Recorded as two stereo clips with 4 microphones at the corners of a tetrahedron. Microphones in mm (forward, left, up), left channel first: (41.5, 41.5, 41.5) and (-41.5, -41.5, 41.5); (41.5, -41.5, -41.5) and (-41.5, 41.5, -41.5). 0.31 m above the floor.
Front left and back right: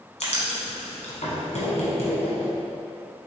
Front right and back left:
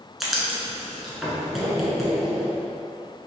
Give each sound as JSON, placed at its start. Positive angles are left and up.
{"t": 0.2, "sound": "writing", "azimuth_deg": 50, "distance_m": 1.2}